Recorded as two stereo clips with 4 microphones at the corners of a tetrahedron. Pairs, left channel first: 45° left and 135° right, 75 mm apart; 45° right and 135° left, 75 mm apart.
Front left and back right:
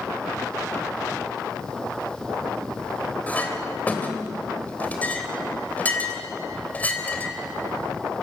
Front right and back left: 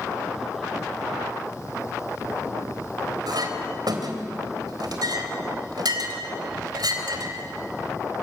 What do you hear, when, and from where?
3.3 s a clink: 115° left, 3 m